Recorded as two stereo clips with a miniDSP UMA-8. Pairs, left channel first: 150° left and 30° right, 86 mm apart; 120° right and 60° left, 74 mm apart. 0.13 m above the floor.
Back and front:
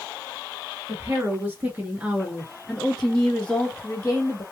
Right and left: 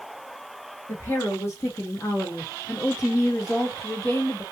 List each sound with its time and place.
0.9 s a woman speaking: 80° right, 2 m; by 4.4 s 165° right, 1.7 m